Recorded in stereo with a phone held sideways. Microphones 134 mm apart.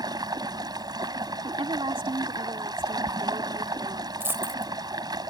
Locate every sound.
0.0 s running water: 30° right (ahead or behind)
1.4 s a woman speaking: 40° right (ahead or behind)
4.2 s a dropped coin: 15° right (ahead or behind)